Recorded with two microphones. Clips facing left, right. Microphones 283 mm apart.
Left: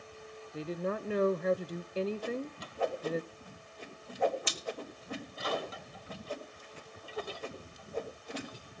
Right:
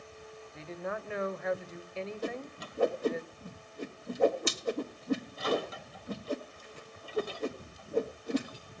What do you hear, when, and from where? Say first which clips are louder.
0.5 s a woman speaking: left 4 dB; 40° left (ahead or behind), 0.7 m
2.2 s a whoosh: left 1 dB; 50° right (ahead or behind), 1.7 m